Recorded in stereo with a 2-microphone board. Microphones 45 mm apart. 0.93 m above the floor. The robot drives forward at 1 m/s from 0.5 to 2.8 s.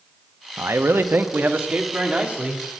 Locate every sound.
0.6 s a man speaking: 75° right (ahead or behind), 1.0 m; by 2.6 s 25° right (ahead or behind), 2.5 m